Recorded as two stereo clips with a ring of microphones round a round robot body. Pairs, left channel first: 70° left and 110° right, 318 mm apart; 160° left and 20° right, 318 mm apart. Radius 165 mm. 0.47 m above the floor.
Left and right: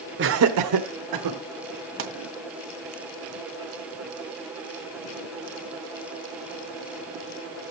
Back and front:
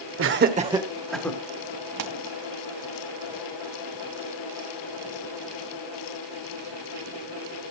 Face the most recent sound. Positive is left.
turn(degrees=-60)